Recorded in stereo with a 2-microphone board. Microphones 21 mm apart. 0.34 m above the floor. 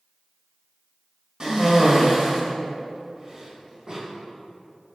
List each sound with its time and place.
1.4 s a cough: 40° right (ahead or behind), 1.6 m